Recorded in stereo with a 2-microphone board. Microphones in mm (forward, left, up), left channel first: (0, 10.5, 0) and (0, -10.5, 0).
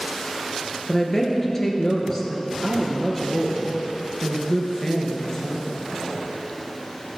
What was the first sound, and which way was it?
A woman speaking, 25° left (ahead or behind).